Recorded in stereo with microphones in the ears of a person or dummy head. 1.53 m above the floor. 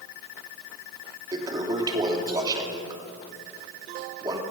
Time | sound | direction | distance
1.3 | a toilet flushing | 20° right (ahead or behind) | 2.5 m